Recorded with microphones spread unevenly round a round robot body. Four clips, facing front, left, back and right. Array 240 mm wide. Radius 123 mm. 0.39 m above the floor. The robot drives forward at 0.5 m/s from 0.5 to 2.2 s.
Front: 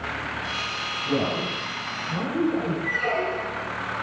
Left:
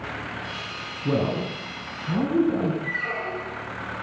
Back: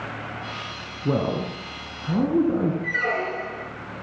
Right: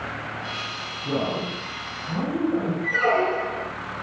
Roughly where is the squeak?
Right.